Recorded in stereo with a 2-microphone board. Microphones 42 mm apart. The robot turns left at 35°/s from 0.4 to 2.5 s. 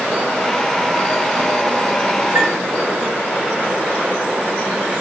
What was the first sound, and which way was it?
A chime, 60° right (ahead or behind).